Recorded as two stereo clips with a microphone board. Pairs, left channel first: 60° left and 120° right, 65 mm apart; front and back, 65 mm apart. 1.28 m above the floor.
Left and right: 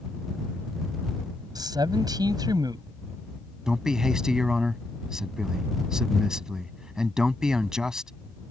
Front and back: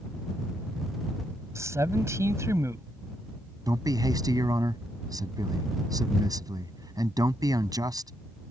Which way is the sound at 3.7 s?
160° left.